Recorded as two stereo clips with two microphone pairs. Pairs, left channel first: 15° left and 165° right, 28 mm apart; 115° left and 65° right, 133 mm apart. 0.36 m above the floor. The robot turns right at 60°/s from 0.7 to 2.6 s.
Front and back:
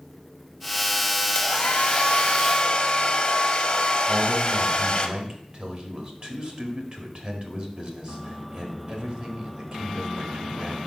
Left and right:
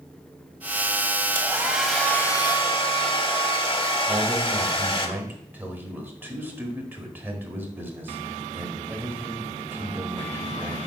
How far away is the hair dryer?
About 0.8 m.